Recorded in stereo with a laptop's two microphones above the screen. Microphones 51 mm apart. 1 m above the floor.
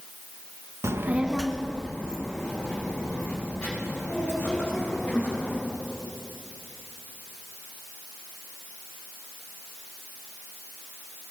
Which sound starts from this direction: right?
A child speaking, at 0.8 s.